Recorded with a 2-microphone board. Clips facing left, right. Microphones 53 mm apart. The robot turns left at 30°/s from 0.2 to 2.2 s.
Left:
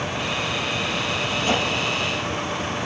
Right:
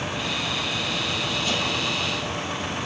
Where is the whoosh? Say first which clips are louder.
Left 6 dB; 35° left (ahead or behind), 4.5 m; by 1.7 s 45° left (ahead or behind), 4.5 m.